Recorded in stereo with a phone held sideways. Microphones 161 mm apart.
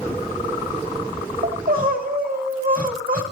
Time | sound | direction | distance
1.4 | crying | 70° right (ahead or behind) | 5.5 m